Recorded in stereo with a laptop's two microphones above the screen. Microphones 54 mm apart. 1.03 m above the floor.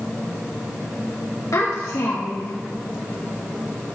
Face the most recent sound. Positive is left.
turn(degrees=70)  # may be behind; listen again after turning